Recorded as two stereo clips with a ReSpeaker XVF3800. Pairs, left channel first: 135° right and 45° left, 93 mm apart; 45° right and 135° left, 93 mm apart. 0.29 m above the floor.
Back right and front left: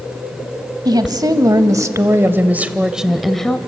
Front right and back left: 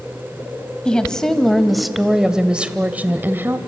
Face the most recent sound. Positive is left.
turn(degrees=155)